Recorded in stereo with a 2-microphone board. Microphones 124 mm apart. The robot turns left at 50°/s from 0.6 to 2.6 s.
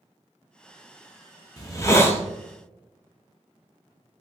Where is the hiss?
60° left, 0.6 m; by 2.2 s 25° left, 0.6 m.